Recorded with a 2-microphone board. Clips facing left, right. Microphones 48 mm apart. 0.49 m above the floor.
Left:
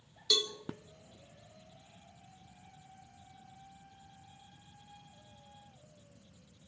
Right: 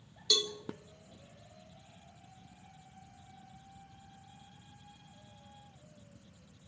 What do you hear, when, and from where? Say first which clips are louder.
0.3 s a cowbell: even; 5° left (ahead or behind), 0.9 m